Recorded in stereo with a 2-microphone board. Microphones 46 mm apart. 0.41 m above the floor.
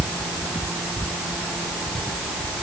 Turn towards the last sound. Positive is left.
No sound to turn to.